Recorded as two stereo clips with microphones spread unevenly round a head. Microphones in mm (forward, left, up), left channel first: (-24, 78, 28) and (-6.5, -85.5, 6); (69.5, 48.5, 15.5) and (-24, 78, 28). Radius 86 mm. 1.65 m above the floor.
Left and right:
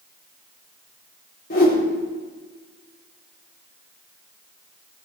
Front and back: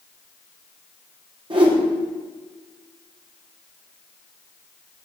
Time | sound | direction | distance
1.5 | a whoosh | 130° left | 4 m